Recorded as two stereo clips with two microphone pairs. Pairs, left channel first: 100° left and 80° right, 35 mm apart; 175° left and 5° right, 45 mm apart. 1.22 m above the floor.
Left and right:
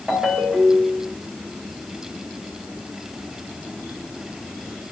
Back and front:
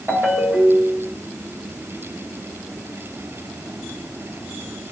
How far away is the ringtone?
About 2.5 m.